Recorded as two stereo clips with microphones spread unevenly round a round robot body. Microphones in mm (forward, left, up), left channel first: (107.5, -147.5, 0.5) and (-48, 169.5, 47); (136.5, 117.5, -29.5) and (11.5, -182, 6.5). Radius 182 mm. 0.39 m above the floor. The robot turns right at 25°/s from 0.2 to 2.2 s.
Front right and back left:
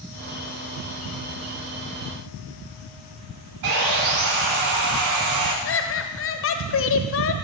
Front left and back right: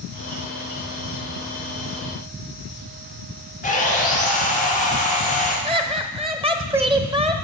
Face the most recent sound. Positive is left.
turn(degrees=-35)